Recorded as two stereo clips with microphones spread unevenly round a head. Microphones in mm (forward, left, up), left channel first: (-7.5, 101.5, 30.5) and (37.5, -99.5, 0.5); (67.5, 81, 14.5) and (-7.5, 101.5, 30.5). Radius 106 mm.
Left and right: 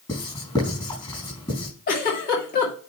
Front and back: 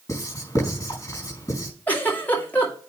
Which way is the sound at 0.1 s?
35° left.